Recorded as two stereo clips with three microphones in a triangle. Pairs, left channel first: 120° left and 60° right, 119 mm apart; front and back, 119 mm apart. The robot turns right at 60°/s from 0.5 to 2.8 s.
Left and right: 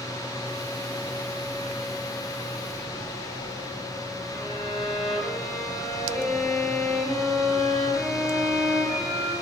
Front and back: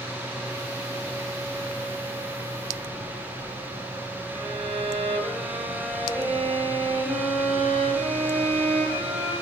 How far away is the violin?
About 1.6 m.